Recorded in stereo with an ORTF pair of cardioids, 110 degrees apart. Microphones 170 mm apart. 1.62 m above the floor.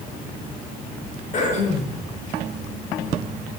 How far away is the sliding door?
No sliding door in this recording.